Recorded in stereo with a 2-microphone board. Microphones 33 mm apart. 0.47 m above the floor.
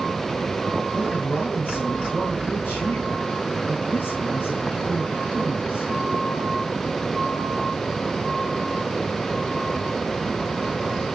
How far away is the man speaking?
About 7 m.